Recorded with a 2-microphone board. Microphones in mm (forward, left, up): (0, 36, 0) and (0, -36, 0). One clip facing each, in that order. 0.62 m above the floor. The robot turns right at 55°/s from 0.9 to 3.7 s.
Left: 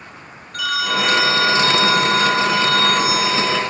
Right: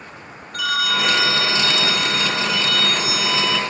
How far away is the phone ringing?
About 0.6 m.